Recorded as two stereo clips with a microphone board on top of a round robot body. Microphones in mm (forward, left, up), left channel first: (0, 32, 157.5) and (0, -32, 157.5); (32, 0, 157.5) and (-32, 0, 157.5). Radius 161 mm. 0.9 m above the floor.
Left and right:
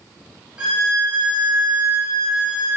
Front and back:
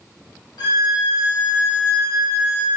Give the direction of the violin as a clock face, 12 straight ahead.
12 o'clock.